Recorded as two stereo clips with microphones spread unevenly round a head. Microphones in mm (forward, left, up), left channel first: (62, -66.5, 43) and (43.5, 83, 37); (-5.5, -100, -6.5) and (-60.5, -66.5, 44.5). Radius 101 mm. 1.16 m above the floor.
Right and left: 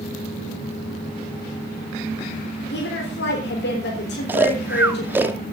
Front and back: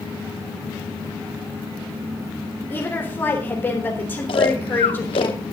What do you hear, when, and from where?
2.7 s a woman speaking: 90° right, 4 m
4.3 s snoring: 25° left, 0.7 m